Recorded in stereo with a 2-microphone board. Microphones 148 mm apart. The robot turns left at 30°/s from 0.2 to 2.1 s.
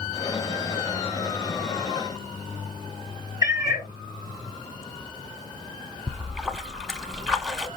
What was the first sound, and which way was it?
A cat meowing, 25° right (ahead or behind).